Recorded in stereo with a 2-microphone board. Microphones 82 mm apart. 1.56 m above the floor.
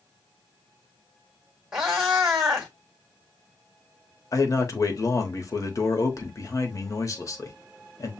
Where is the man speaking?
40° left (ahead or behind), 1.1 m.